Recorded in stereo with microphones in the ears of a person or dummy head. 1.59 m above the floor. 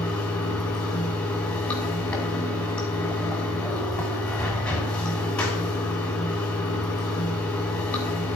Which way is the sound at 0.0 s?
10° left (ahead or behind).